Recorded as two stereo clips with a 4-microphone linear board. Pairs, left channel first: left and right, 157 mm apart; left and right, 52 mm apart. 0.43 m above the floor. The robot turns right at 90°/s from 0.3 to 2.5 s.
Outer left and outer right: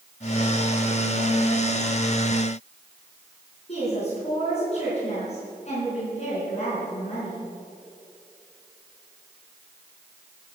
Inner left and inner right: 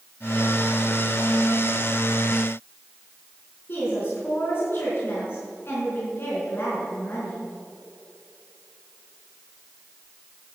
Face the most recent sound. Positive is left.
turn(degrees=45)  # may be behind; listen again after turning